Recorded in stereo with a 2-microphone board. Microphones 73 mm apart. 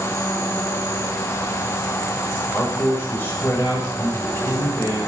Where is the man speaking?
35° left (ahead or behind), 8 m.